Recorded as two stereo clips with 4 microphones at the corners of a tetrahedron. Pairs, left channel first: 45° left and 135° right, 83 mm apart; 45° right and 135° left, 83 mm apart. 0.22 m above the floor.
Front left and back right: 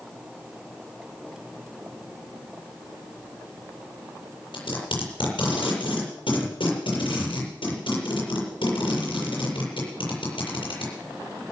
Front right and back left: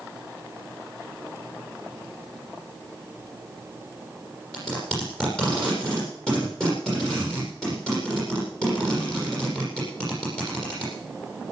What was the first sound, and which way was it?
Tape being pulled, 35° left.